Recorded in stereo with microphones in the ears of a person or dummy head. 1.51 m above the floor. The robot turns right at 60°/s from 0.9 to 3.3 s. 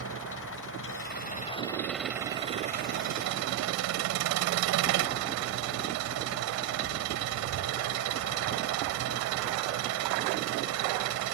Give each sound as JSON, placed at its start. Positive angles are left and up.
{"t": 0.0, "sound": "an engine running", "azimuth_deg": 115}